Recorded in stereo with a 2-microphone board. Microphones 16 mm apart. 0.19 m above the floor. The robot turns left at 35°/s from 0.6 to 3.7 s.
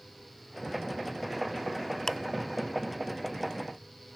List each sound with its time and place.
2.1 s ticking: 40° left (ahead or behind), 0.6 m